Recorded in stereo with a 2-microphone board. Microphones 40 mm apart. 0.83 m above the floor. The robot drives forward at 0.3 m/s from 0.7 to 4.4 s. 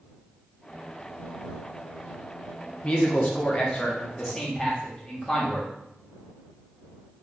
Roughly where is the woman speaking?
Left.